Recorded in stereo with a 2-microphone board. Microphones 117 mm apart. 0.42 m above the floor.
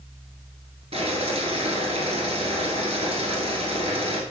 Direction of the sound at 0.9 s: 60° right (ahead or behind).